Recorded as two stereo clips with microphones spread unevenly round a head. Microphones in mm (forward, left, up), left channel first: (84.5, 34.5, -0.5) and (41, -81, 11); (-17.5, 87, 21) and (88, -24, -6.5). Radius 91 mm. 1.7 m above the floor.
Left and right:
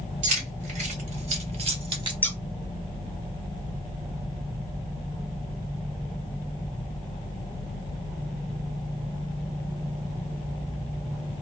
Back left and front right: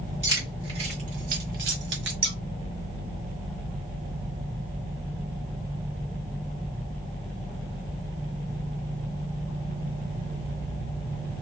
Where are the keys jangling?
125° right, 1.3 m; by 2.1 s 70° right, 1.4 m.